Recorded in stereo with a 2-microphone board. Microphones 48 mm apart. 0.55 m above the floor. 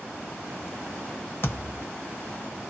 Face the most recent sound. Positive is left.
turn(degrees=55)  # may be behind; listen again after turning